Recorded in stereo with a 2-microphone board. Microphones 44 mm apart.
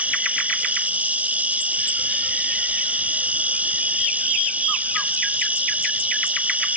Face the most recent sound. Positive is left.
turn(degrees=-35)  # may be behind; listen again after turning